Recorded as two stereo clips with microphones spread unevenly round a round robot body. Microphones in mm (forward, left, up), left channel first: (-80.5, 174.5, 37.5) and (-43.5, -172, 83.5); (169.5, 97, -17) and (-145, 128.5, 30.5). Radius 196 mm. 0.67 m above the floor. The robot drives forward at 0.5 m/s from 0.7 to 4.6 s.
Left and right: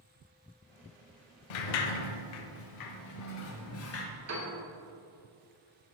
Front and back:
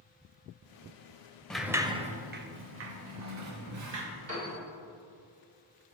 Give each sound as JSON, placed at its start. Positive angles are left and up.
{"t": 1.5, "sound": "a sliding door", "azimuth_deg": 85, "distance_m": 0.8}
{"t": 4.3, "sound": "a piano", "azimuth_deg": -130, "distance_m": 2.5}